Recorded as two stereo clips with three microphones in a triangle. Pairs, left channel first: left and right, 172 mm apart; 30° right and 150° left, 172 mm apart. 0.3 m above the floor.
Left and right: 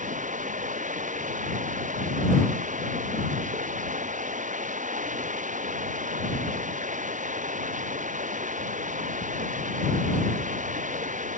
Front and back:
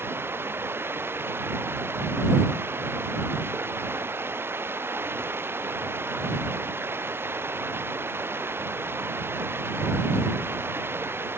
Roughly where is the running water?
Behind right.